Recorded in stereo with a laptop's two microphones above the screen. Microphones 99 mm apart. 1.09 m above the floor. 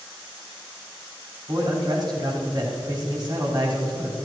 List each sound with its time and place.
1.5 s a man speaking: 45° right (ahead or behind), 4 m